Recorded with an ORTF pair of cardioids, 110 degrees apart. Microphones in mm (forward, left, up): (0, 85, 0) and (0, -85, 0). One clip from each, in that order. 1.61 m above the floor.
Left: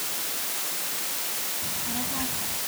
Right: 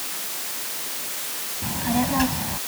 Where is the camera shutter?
I don't hear a camera shutter.